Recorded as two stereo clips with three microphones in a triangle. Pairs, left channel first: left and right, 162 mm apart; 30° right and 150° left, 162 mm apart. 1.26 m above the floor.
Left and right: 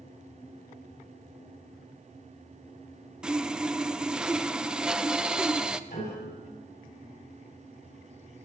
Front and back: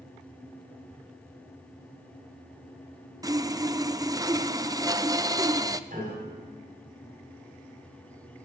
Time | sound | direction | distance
3.2 | sawing | 170° right | 0.5 m
5.9 | a piano | 115° left | 7 m